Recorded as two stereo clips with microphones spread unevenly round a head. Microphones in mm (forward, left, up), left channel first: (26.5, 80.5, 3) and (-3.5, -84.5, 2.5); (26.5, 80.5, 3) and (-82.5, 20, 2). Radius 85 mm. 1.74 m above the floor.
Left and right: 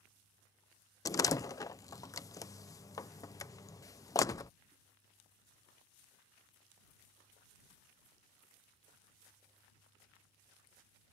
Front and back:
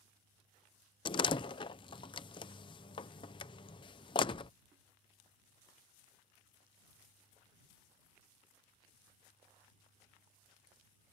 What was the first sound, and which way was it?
A door slam, 20° left.